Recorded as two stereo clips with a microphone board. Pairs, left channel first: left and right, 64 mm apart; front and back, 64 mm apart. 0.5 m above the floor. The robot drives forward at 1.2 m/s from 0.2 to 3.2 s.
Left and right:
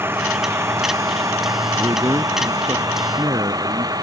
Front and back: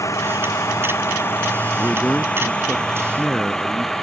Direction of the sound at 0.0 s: 35° right.